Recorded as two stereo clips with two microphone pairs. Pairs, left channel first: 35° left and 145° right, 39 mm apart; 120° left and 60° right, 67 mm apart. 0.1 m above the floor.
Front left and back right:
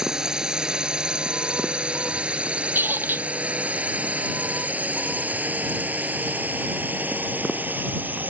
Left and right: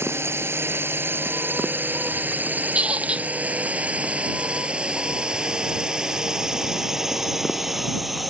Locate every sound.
0.0 s a drone: 80° right; by 8.3 s 150° right
2.8 s a squeak: 130° right